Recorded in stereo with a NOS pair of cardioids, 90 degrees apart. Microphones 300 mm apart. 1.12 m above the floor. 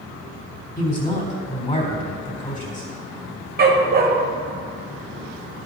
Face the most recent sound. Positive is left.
turn(degrees=-35)